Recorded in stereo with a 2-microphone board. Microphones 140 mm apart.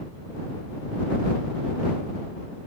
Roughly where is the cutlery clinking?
No cutlery clinking in this recording.